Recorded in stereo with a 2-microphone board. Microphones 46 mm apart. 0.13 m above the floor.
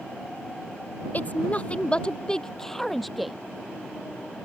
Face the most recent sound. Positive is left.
turn(degrees=0)  # may be behind; listen again after turning